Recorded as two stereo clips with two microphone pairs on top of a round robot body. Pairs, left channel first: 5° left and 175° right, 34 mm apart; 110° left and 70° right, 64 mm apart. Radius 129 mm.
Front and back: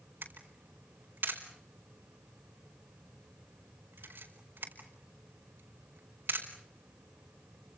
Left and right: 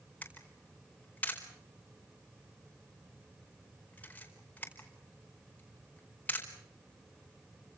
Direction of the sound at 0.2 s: Straight behind.